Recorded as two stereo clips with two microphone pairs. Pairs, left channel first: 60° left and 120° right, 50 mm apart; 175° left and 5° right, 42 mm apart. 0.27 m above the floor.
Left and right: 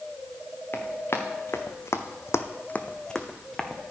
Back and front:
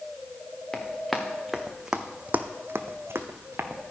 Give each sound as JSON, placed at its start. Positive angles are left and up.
{"t": 0.7, "sound": "running footsteps", "azimuth_deg": 100, "distance_m": 1.7}